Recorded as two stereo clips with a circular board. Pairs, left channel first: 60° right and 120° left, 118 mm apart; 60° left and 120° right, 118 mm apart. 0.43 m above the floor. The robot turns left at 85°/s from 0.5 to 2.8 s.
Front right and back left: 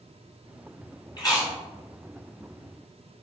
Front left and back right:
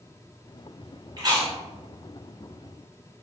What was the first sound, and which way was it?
Chewing, 85° right.